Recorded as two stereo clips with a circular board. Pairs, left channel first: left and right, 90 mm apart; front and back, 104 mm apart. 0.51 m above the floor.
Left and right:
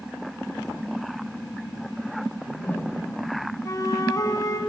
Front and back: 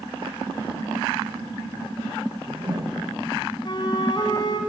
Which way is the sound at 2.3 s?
150° left.